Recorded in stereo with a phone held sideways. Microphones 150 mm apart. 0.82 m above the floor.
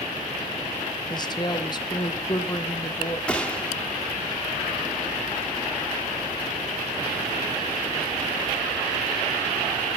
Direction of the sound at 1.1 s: 30° left (ahead or behind).